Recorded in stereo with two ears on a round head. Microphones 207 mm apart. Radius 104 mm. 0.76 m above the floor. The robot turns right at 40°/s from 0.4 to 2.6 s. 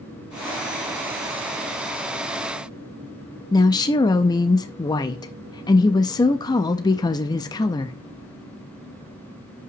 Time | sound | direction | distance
3.5 | a woman speaking | 15° left (ahead or behind) | 0.5 m